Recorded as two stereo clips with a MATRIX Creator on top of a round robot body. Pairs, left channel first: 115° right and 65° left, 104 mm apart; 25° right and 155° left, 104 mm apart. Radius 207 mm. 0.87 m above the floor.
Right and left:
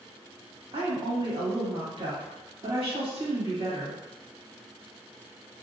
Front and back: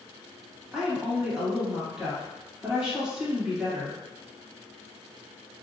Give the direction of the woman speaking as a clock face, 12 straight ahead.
9 o'clock.